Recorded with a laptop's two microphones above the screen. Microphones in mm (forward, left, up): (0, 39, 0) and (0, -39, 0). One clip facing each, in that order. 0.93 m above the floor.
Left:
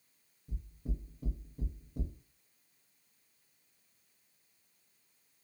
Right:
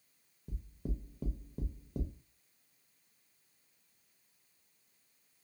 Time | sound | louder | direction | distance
0.5 | knocking | right 2 dB | 80° right | 0.8 m